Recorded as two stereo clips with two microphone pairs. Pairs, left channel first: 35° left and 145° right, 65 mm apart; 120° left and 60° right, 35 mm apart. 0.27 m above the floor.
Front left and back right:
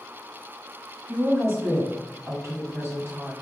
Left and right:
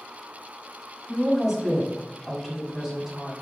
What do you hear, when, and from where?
1.1 s a woman speaking: 135° right, 2 m